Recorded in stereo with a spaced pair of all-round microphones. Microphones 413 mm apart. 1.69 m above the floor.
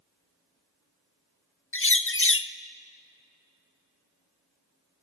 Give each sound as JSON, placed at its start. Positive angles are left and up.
{"t": 1.7, "sound": "a bird", "side_deg": 30, "distance_m": 0.6}